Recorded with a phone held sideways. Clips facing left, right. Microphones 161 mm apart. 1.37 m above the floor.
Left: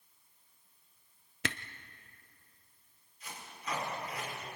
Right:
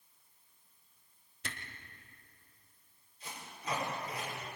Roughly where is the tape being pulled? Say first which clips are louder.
Right 1 dB; right.